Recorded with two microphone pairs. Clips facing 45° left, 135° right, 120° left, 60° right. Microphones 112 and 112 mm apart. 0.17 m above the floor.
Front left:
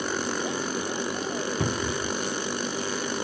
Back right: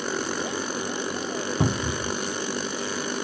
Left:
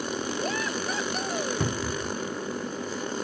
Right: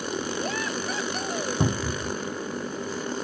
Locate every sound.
1.6 s a cupboard door: 100° right, 0.5 m